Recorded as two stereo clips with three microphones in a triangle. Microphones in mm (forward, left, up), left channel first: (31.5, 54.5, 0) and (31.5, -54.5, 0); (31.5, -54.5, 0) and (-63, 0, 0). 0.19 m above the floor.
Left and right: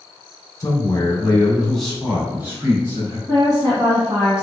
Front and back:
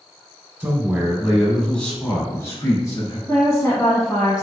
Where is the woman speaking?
75° right, 1.4 m.